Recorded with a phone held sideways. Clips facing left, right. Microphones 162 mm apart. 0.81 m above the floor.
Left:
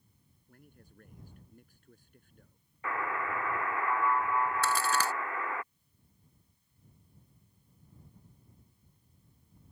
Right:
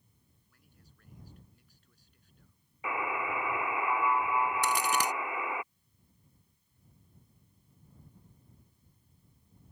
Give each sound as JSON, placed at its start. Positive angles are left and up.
{"t": 0.5, "sound": "a man speaking", "side_deg": 50}
{"t": 2.8, "sound": "a buzzer", "side_deg": -10}
{"t": 4.6, "sound": "a crack", "side_deg": -20}